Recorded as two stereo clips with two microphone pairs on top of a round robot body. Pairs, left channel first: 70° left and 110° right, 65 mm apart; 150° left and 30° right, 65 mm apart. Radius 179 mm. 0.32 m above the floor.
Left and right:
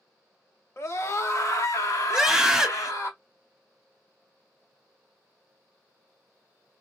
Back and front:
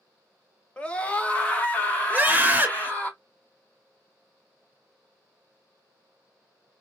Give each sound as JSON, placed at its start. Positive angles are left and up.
{"t": 0.8, "sound": "a scream", "azimuth_deg": 90, "distance_m": 1.3}
{"t": 2.1, "sound": "a scream", "azimuth_deg": -50, "distance_m": 1.3}